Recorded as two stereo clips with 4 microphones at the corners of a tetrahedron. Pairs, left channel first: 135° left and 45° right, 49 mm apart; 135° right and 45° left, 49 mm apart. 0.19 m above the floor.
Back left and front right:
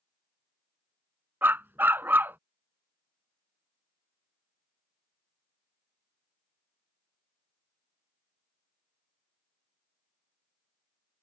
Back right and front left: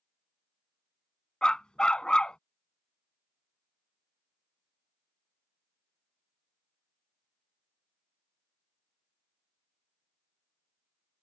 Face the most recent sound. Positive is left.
turn(degrees=-70)